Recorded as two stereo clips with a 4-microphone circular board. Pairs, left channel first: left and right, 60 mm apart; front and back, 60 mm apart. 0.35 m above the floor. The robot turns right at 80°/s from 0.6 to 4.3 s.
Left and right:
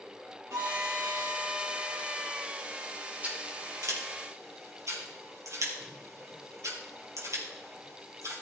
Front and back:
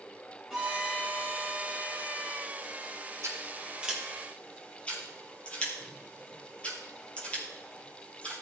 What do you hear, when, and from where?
0.5 s a violin: 90° right, 3 m; by 2.5 s 60° left, 3 m
3.2 s scissors: 155° right, 4 m; by 8.4 s 70° right, 4 m